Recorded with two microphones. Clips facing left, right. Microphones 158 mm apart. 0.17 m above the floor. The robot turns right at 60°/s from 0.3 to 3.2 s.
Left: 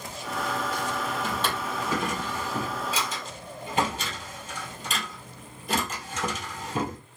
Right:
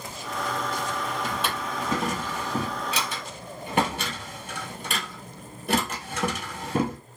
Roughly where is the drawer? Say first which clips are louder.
Even; centre.